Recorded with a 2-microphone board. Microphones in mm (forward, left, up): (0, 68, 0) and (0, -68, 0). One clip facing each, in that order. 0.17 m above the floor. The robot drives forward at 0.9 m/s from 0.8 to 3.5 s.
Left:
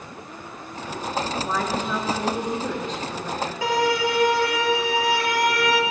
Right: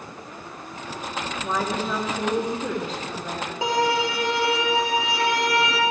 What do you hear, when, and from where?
1.4 s a woman speaking: 5° right (ahead or behind), 2.5 m
3.6 s a violin: 20° right (ahead or behind), 3 m